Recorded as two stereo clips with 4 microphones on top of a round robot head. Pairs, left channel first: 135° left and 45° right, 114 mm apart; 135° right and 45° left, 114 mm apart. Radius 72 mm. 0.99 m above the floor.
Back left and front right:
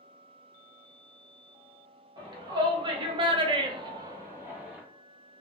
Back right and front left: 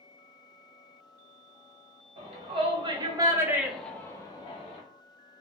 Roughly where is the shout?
Ahead.